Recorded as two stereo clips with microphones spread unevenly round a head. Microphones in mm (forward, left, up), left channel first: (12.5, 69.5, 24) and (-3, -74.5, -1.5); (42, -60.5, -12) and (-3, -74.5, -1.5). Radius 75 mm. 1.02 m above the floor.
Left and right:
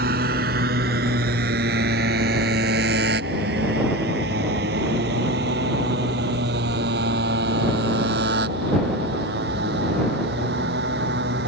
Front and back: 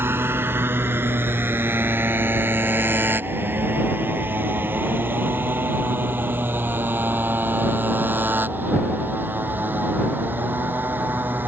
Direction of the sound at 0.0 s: 130° right.